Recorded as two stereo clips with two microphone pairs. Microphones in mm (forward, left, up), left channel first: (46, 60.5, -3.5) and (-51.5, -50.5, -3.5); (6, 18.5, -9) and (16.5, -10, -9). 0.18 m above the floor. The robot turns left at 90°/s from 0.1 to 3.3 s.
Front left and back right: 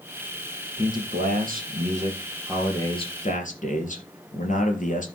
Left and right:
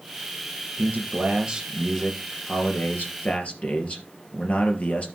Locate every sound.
0.8 s a man speaking: 60° right, 3 m; by 5.1 s 75° left, 3 m